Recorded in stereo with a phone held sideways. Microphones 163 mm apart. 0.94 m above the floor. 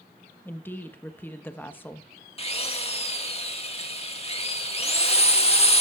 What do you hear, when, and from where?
0.5 s a woman speaking: 10° left (ahead or behind), 1.2 m
2.4 s a drill: 40° left (ahead or behind), 1.8 m